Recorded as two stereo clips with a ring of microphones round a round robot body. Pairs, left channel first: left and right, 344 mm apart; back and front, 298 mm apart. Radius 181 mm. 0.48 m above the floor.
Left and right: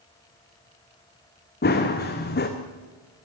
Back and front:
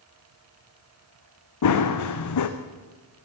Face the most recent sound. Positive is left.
turn(degrees=155)